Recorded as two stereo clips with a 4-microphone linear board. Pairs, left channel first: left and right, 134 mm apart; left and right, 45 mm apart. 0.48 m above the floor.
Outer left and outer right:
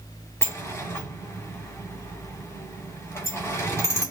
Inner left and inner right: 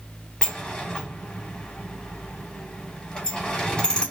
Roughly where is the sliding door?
Centre.